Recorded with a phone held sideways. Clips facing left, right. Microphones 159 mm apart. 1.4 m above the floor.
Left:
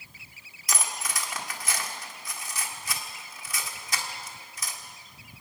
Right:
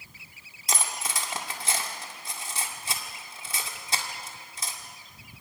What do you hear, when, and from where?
0.7 s cutlery clinking: 30° right (ahead or behind), 1.8 m